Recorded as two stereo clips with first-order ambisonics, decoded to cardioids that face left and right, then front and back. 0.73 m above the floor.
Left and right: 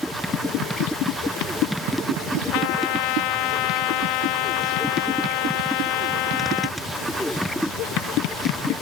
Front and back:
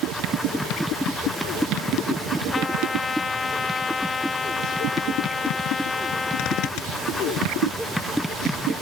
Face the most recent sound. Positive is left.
turn(degrees=70)